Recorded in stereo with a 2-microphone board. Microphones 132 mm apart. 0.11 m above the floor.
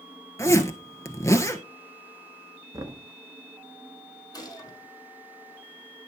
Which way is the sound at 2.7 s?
25° right (ahead or behind).